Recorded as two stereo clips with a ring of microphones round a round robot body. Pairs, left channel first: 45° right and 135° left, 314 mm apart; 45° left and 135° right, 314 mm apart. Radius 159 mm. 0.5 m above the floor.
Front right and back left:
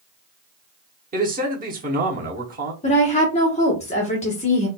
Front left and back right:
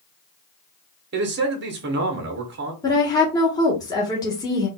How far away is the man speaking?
About 0.9 m.